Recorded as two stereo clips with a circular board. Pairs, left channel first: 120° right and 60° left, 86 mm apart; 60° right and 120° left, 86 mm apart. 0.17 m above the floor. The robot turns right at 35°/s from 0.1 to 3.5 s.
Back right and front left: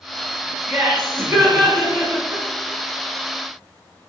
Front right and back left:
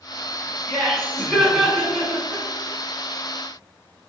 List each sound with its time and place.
0.7 s laughter: straight ahead, 1.9 m; by 2.4 s 60° left, 1.9 m